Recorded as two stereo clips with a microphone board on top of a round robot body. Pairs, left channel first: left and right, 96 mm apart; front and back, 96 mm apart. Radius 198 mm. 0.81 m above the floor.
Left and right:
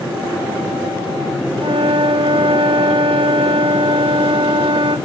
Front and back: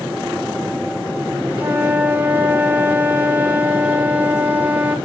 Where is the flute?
110° right, 0.7 m.